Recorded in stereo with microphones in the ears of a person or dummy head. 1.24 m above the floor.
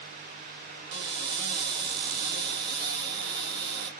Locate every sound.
0.9 s a cupboard door: 45° right (ahead or behind), 1.3 m